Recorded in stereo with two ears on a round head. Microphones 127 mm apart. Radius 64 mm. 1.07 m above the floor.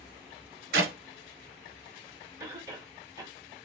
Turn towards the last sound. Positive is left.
turn(degrees=-20)  # may be behind; listen again after turning